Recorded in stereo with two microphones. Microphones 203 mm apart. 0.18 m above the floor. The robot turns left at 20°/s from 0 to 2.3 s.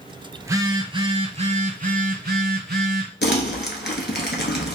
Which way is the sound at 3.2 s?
60° left (ahead or behind).